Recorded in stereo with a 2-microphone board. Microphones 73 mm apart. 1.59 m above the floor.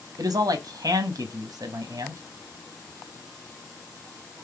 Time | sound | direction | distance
0.2 | a man speaking | 55° right (ahead or behind) | 0.7 m